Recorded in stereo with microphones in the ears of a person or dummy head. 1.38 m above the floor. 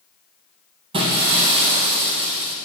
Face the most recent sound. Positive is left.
turn(degrees=-30)  # may be behind; listen again after turning